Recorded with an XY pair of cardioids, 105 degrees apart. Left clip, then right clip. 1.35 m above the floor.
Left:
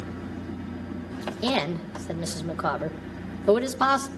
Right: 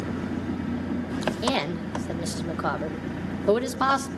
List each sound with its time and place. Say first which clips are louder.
0.0 s an engine running: right 6 dB; 55° right, 0.8 m
1.4 s a woman speaking: left 3 dB; straight ahead, 1.2 m